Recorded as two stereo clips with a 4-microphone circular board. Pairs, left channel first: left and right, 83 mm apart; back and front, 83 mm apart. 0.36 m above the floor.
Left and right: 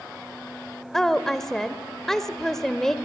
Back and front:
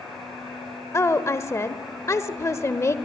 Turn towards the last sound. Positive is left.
turn(degrees=170)